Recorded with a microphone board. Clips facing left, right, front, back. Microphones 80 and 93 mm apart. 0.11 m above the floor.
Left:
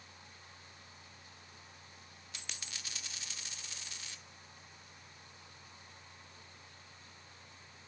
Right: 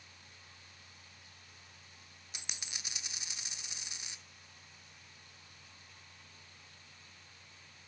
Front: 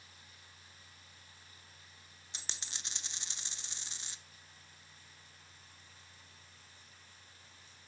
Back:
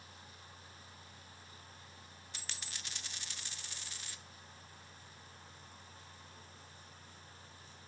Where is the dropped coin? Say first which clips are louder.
Right 1 dB, front 1 dB; 35° right, 0.6 m.